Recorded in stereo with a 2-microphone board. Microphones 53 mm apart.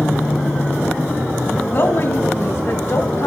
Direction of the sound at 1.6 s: 45° left (ahead or behind).